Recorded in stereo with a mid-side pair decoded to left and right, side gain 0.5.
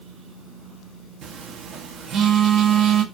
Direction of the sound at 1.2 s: 65° right.